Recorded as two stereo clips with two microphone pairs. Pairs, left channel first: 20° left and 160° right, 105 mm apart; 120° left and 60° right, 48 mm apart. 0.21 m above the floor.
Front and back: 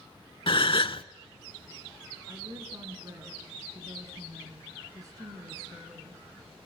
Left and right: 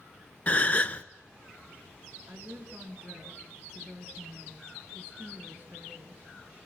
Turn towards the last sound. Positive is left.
turn(degrees=-105)